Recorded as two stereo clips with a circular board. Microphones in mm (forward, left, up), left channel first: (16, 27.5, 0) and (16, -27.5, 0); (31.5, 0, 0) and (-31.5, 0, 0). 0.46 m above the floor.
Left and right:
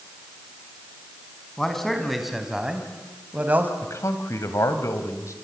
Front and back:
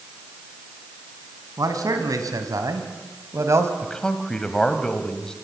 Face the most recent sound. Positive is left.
turn(degrees=80)